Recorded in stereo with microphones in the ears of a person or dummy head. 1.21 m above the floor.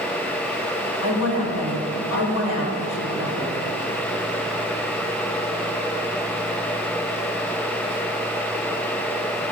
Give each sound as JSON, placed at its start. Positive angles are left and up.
{"t": 1.0, "sound": "a woman speaking", "side_deg": 65, "distance_m": 3.0}